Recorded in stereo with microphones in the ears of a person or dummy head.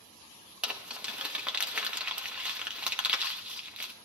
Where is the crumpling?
5° right (ahead or behind), 1.1 m.